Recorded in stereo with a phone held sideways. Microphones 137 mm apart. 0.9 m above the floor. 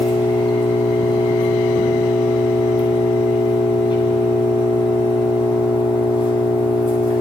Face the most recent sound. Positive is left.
turn(degrees=40)  # may be behind; listen again after turning